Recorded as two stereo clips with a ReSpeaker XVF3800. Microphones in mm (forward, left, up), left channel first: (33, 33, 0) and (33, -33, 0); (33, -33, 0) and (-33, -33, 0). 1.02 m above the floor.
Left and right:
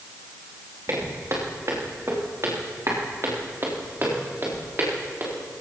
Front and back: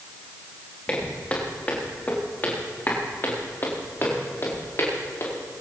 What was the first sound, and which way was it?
Footsteps, 70° right.